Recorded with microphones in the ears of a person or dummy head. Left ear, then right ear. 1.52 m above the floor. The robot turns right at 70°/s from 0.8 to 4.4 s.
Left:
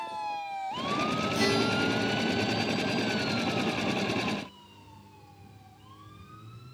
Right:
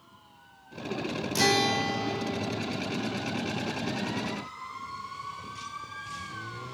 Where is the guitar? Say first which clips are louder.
Right 4 dB; 95° right, 0.6 m; by 3.7 s 70° left, 0.6 m.